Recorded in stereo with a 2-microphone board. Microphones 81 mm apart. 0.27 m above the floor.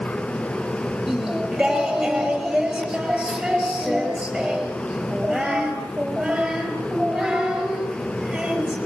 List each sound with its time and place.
1.1 s singing: 5° right (ahead or behind), 4 m